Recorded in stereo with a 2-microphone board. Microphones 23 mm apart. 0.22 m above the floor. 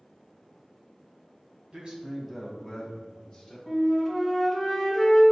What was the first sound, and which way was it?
A man speaking, 45° right (ahead or behind).